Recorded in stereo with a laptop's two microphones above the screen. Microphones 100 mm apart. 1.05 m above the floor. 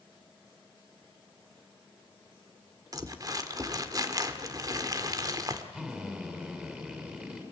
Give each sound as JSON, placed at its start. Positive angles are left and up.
{"t": 2.9, "sound": "crumpling", "side_deg": -40, "distance_m": 1.4}
{"t": 5.7, "sound": "a drill", "side_deg": -10, "distance_m": 6.0}